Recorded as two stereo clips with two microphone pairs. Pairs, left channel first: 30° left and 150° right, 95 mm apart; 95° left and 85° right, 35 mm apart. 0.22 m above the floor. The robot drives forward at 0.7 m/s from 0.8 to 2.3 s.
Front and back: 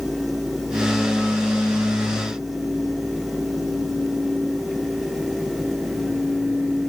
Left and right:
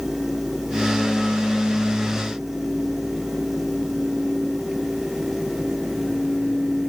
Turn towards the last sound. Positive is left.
No sound to turn to.